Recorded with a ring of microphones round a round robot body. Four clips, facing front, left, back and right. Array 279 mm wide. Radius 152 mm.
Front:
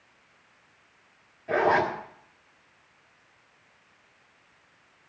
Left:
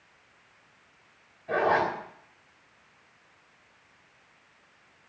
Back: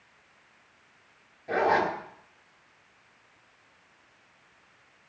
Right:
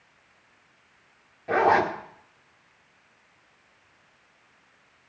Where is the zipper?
80° right, 1.8 m.